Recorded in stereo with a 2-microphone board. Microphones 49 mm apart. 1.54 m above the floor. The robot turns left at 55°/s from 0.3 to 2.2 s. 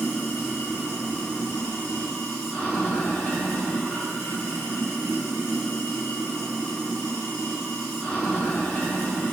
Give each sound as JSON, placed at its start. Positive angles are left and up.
{"t": 0.0, "sound": "running water", "azimuth_deg": 130, "distance_m": 1.8}